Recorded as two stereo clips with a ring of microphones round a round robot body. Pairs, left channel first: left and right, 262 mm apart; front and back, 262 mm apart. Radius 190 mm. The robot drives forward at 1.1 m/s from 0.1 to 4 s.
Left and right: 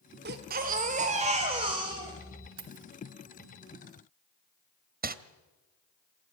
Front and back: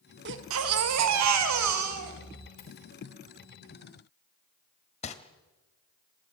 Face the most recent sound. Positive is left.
turn(degrees=-55)